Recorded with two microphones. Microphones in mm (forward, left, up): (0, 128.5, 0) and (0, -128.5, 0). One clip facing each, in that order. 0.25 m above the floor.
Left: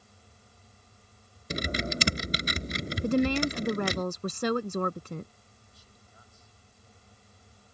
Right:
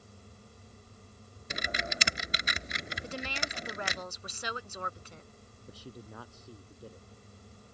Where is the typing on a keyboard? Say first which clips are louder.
Left 8 dB; 40° left (ahead or behind).